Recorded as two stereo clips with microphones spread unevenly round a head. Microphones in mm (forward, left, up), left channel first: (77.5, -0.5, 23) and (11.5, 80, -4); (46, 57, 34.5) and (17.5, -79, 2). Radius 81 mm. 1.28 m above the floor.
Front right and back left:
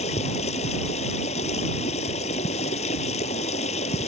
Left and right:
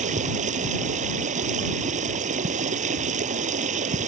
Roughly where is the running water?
Ahead right.